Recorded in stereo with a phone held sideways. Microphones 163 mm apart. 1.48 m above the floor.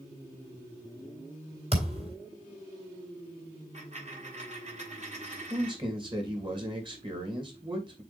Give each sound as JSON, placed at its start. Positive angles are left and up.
{"t": 1.7, "sound": "a thud", "side_deg": -40, "distance_m": 3.5}
{"t": 3.7, "sound": "a dropped coin", "side_deg": -50, "distance_m": 2.5}
{"t": 5.5, "sound": "a man speaking", "side_deg": -30, "distance_m": 2.5}